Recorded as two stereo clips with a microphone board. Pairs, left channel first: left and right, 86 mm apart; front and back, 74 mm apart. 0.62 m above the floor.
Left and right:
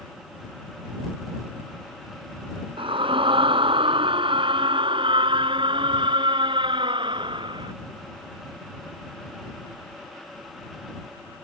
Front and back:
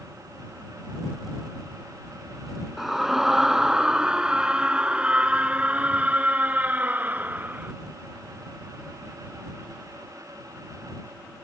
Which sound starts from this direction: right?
A scream, at 2.8 s.